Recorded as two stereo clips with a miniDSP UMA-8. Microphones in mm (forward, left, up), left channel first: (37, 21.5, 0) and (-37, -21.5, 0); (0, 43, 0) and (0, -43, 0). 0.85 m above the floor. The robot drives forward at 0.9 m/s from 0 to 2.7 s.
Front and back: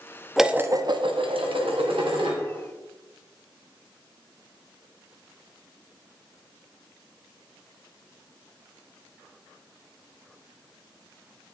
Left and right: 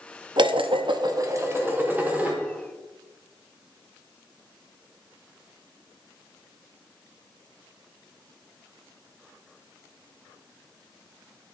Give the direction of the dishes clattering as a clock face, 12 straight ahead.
2 o'clock.